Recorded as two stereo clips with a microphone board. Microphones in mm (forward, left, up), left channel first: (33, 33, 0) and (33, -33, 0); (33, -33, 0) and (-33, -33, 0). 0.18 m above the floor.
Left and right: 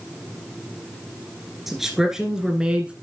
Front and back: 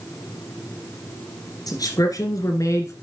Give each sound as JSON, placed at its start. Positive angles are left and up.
{"t": 1.7, "sound": "a man speaking", "azimuth_deg": -5, "distance_m": 2.5}